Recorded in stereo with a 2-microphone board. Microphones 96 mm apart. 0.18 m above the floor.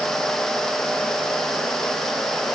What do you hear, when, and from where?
Only background noise.